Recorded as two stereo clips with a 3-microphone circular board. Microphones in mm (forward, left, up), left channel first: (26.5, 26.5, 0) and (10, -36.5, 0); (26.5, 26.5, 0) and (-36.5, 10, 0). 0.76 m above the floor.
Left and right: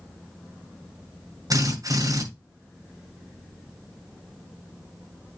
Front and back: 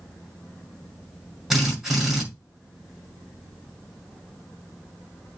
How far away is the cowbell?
I don't hear a cowbell.